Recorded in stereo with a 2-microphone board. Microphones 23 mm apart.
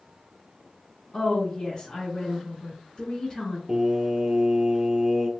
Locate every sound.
1.1 s a woman speaking: 30° left (ahead or behind), 1.2 m
3.7 s singing: 25° right (ahead or behind), 0.8 m